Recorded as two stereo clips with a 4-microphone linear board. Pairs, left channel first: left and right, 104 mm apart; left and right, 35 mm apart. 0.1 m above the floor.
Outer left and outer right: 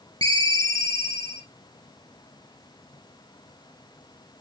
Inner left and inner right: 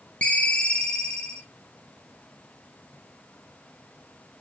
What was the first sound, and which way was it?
A ringtone, 35° left (ahead or behind).